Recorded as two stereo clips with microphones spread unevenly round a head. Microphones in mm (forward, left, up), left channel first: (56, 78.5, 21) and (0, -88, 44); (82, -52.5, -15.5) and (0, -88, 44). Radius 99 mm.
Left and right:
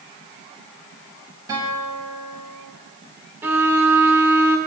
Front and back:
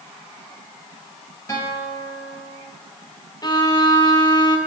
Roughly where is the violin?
Ahead right.